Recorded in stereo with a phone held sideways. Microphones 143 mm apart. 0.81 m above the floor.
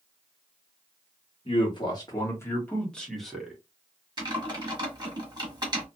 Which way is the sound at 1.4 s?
40° left (ahead or behind).